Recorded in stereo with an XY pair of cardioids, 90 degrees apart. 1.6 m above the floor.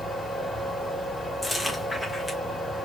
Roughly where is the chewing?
Ahead.